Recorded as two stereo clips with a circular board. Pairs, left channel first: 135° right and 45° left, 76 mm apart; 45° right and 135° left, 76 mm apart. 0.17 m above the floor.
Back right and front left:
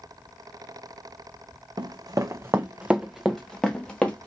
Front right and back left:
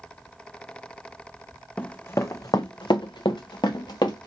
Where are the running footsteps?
30° left, 0.6 m; by 4.3 s 65° right, 1.2 m.